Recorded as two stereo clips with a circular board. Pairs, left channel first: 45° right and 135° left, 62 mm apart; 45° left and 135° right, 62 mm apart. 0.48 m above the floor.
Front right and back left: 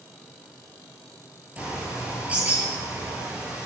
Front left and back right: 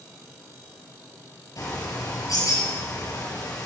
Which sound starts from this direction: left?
A bird, at 1.6 s.